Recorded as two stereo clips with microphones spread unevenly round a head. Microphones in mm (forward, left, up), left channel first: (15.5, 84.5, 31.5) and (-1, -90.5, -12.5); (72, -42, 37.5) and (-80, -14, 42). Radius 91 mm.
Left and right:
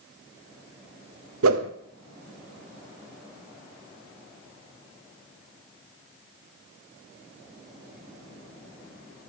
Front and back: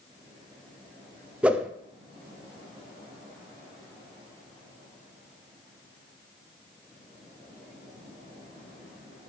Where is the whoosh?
110° right, 0.8 m.